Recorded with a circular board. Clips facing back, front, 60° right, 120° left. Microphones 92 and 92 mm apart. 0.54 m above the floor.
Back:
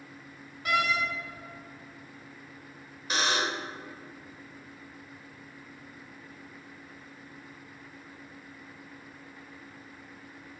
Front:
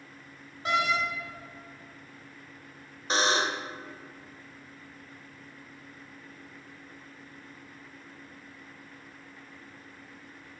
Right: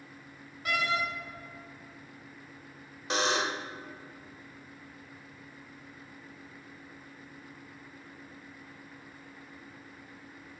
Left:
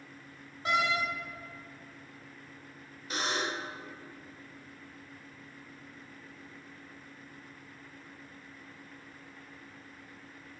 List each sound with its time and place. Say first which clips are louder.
0.7 s a door slam: front 1 dB, left 2 dB; 60° left, 1.8 m
3.1 s a buzzer: front 3 dB, right 4 dB; 60° right, 0.6 m